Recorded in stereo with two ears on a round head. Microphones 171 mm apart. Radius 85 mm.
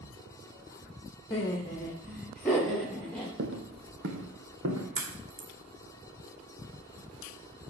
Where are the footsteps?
60° right (ahead or behind), 1.9 m; by 4.8 s 75° right (ahead or behind), 3.5 m.